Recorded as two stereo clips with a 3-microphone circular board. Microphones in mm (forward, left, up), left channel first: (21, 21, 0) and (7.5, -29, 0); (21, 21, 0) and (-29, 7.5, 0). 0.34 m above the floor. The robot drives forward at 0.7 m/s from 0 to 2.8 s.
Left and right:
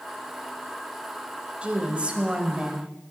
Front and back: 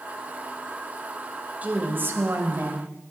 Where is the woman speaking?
150° right, 1.0 m; by 2.9 s 170° right, 1.6 m.